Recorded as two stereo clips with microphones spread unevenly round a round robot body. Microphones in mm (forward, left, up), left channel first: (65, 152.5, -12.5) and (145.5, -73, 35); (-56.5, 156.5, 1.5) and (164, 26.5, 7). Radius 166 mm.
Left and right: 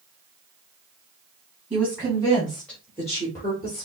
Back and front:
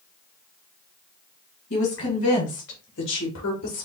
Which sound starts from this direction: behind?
A woman speaking, at 1.7 s.